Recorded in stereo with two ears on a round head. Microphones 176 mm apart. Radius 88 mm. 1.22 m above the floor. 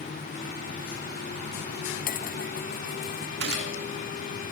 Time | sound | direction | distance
2.0 | dishes clattering | 55° left (ahead or behind) | ?
3.4 | a gunshot | 70° right (ahead or behind) | ?